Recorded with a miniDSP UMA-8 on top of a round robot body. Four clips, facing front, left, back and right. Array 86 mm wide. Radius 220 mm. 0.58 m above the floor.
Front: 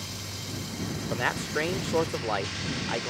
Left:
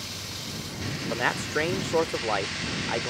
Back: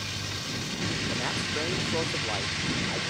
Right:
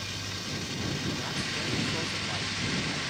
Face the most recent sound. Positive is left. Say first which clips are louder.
# left 7 dB, front 3 dB
turn(degrees=60)